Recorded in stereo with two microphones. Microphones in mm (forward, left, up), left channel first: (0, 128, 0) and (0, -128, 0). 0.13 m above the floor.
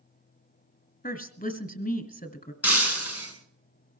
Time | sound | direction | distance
1.0 | a woman speaking | 35° left (ahead or behind) | 1.2 m
2.6 | breaking glass | 65° left (ahead or behind) | 4 m